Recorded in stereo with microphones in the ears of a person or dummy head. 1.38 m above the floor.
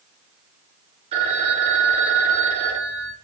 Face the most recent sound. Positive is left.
turn(degrees=-35)  # may be behind; listen again after turning